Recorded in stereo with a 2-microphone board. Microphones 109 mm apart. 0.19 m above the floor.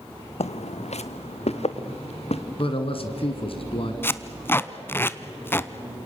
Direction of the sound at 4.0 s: 20° left (ahead or behind).